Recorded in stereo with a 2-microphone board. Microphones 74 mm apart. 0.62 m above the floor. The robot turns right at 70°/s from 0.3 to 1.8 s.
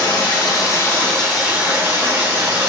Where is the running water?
105° left, 1.3 m; by 2.7 s 150° right, 1.3 m.